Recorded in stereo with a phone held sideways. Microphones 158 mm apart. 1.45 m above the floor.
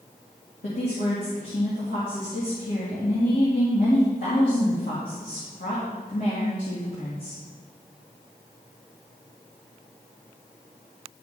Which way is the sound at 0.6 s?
60° left (ahead or behind).